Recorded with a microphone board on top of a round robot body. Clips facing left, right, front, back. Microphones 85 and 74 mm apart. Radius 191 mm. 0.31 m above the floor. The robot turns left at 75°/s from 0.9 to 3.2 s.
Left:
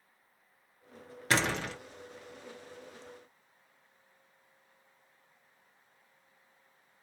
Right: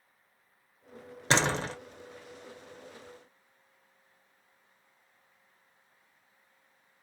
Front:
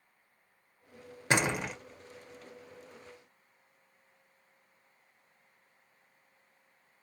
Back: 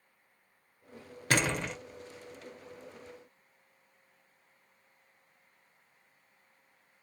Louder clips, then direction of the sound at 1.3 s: Right 3 dB, front 1 dB; 50° right.